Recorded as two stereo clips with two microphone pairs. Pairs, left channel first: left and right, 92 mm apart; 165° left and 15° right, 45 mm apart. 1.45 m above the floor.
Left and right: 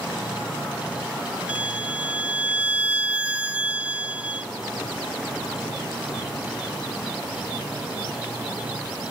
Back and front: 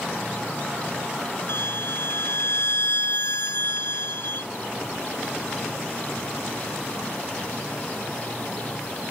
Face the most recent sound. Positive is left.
turn(degrees=-165)